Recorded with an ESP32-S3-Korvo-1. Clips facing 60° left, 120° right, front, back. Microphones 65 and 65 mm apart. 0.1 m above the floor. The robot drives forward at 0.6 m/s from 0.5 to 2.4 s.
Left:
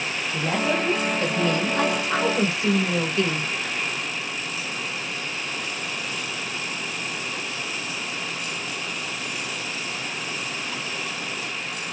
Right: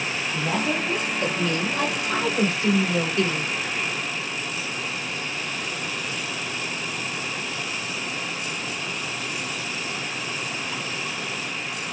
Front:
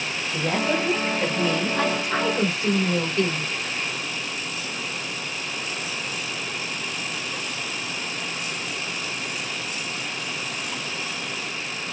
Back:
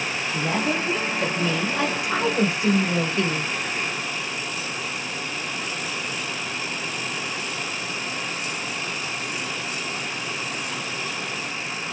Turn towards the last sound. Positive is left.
turn(degrees=120)